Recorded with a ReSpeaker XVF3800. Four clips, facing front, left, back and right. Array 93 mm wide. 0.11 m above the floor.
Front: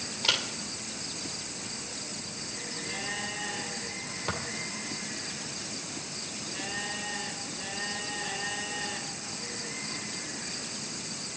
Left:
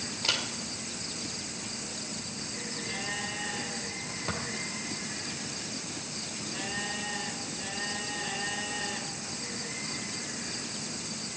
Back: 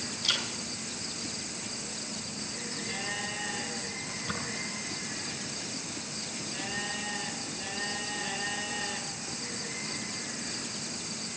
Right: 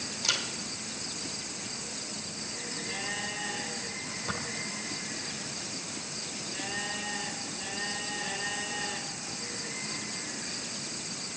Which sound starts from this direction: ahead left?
A camera shutter, at 0.2 s.